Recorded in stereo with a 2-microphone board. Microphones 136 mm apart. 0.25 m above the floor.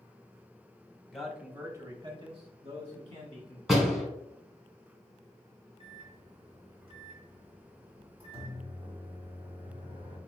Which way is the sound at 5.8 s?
40° right (ahead or behind).